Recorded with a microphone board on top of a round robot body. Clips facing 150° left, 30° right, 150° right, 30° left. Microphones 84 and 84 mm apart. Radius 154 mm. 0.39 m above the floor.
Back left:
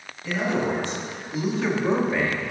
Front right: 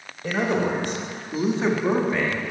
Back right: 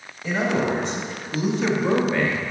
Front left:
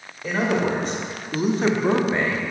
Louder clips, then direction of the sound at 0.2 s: Front right 2 dB, even; 15° right.